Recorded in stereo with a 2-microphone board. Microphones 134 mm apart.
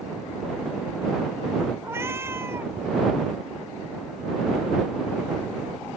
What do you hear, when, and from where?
1.8 s a cat meowing: 20° right (ahead or behind)